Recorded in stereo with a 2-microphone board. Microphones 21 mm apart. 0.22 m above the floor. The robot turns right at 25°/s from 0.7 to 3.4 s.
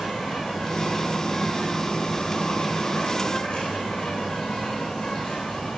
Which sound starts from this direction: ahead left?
An insect, at 0.0 s.